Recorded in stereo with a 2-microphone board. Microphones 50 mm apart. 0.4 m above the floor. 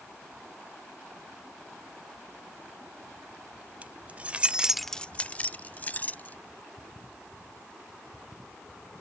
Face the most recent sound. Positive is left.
turn(degrees=30)  # may be behind; listen again after turning